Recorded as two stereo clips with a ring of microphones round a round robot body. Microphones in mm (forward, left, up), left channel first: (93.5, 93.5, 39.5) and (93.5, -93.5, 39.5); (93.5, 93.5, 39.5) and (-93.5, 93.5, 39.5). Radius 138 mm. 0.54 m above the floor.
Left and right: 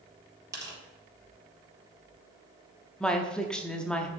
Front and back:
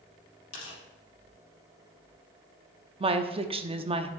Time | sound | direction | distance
0.5 | tearing paper | 15° right | 4 m
3.0 | a woman speaking | 170° left | 0.7 m